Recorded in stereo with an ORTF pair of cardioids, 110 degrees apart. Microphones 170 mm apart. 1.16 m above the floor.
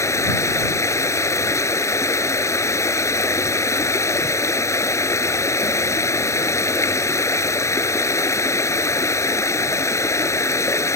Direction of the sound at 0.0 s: 15° left.